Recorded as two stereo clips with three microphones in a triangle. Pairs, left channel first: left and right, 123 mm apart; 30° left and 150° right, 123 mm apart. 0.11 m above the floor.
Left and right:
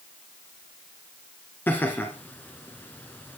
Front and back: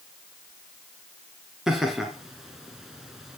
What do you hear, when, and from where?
1.7 s laughter: 130° left, 1.6 m